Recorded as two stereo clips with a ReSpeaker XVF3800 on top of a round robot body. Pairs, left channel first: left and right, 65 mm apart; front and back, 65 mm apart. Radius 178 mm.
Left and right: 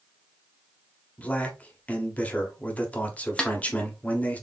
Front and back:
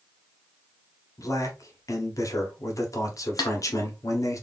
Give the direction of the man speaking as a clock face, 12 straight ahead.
11 o'clock.